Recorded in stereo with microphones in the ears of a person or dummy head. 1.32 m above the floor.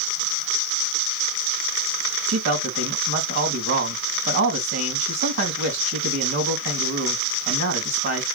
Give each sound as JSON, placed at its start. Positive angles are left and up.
{"t": 2.3, "sound": "a man speaking", "side_deg": -50, "distance_m": 2.0}